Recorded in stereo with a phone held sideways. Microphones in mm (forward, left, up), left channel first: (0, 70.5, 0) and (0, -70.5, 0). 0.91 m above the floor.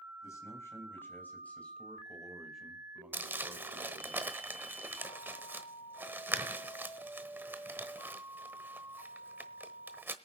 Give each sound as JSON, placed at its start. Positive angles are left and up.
{"t": 0.2, "sound": "a man speaking", "side_deg": 25, "distance_m": 4.5}
{"t": 3.1, "sound": "crumpling", "side_deg": -15, "distance_m": 1.1}